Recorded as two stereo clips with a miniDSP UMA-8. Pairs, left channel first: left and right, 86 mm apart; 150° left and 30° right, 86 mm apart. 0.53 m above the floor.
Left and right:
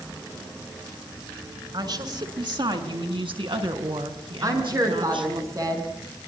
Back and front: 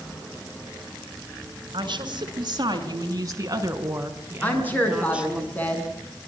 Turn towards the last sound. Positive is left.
turn(degrees=-140)